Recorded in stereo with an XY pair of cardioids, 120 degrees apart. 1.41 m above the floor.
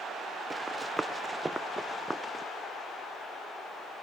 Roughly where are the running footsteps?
Ahead.